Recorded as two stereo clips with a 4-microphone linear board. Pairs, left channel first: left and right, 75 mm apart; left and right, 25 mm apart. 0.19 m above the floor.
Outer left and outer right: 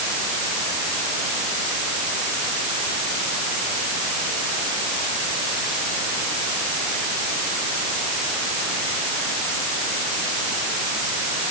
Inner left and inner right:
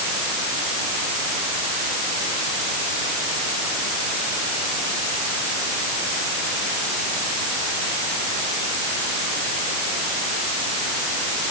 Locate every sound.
Only background noise.